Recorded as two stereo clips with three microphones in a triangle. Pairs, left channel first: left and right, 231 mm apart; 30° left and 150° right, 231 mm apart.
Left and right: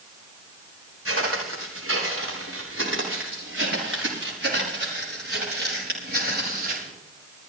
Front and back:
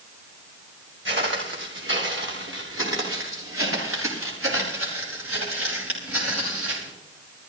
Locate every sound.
1.1 s footsteps: 115° right, 7 m; by 6.9 s 140° right, 8 m